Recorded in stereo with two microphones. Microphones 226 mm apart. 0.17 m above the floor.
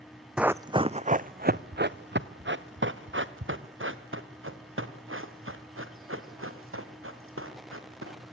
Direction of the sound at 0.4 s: 5° right (ahead or behind).